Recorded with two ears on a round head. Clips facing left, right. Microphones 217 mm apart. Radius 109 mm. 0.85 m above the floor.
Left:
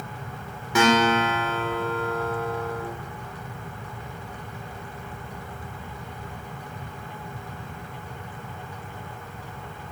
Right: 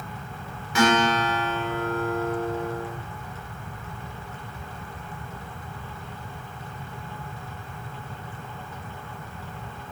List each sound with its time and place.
0.8 s a guitar: 70° left (ahead or behind), 2.5 m